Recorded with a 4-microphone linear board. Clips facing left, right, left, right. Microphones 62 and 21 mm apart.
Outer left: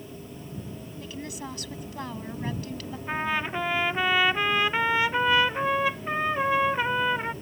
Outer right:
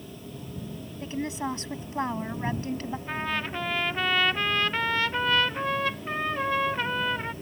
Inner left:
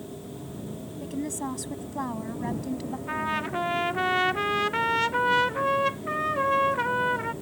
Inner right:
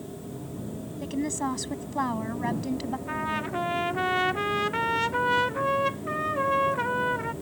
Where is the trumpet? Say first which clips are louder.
Outer left 4 dB, inner left 3 dB; 10° left (ahead or behind).